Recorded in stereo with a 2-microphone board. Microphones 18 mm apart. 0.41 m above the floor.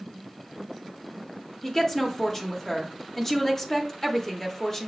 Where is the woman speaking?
20° left (ahead or behind), 0.8 m.